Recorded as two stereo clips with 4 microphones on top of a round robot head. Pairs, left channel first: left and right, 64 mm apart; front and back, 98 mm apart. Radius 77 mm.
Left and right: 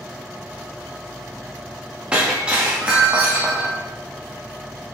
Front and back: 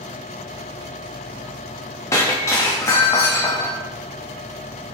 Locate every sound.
2.1 s breaking glass: 30° right, 0.9 m